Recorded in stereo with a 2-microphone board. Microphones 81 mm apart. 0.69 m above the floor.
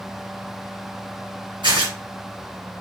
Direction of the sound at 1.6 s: 85° right.